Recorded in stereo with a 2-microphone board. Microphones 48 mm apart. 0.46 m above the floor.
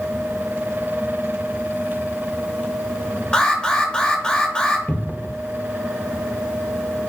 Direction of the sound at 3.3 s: 20° left (ahead or behind).